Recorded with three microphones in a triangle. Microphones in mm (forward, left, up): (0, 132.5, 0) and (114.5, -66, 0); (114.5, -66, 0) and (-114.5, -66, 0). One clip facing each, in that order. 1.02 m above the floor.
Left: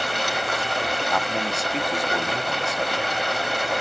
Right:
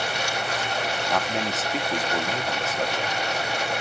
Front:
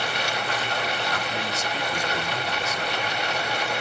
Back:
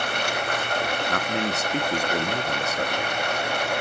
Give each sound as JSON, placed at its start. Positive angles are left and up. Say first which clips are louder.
{"t": 0.0, "sound": "running water", "louder": "left 2 dB, back 1 dB", "azimuth_deg": 145, "distance_m": 1.9}
{"t": 1.1, "sound": "a man speaking", "louder": "even, back 4 dB", "azimuth_deg": -150, "distance_m": 1.7}